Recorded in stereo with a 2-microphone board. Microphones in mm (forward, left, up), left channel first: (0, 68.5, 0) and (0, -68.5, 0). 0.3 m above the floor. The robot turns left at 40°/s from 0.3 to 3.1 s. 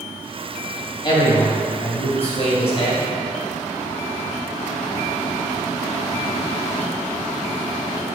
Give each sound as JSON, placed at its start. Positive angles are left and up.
{"t": 1.0, "sound": "a man speaking", "azimuth_deg": 130, "distance_m": 2.0}